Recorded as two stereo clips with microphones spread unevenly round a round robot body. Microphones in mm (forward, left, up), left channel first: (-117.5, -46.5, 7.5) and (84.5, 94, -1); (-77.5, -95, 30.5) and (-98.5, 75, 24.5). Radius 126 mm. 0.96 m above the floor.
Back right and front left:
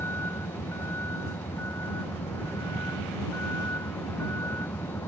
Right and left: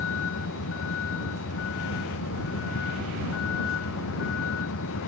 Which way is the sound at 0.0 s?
60° right.